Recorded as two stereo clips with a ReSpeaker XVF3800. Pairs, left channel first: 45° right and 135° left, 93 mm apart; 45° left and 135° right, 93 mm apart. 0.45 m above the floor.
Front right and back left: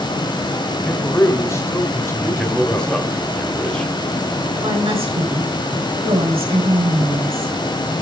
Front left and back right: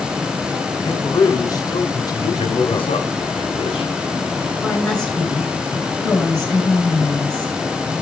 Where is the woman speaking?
125° left, 6 m.